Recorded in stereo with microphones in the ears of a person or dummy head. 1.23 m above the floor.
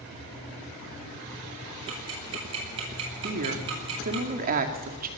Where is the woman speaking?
45° right (ahead or behind), 2 m.